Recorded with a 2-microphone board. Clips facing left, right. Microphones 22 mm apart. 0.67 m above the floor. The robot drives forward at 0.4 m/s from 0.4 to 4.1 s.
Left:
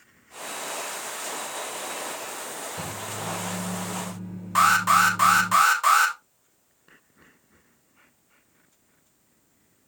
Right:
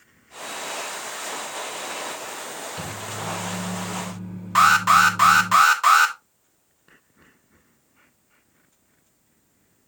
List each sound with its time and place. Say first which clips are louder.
2.8 s a microwave: right 1 dB; 40° right (ahead or behind), 3.5 m; by 5.5 s 35° right (ahead or behind), 4 m
4.5 s an alarm: right 3 dB; 20° right (ahead or behind), 1.5 m